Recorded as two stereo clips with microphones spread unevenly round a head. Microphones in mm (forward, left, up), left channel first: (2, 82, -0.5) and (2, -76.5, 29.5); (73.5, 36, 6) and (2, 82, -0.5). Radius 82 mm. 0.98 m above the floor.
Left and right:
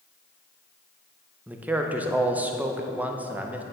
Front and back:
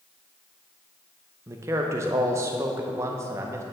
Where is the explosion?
I don't hear an explosion.